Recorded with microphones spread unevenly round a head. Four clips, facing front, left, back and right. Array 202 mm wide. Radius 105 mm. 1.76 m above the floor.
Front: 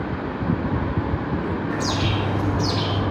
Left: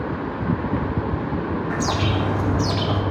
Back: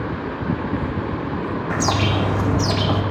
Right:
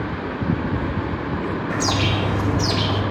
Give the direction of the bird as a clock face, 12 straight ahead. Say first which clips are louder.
Right 1 dB, back 6 dB; 6 o'clock.